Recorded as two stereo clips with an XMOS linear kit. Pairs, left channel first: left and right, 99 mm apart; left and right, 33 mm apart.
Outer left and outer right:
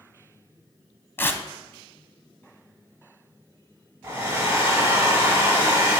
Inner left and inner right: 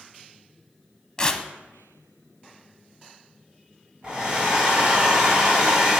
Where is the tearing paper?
25° left (ahead or behind), 0.7 m.